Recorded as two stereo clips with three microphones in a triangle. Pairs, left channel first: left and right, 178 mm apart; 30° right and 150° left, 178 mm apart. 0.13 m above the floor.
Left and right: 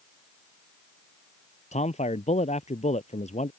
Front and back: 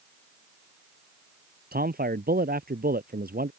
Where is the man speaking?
135° left.